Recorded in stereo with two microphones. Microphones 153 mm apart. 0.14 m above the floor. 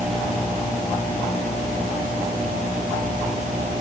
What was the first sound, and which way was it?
Only background noise.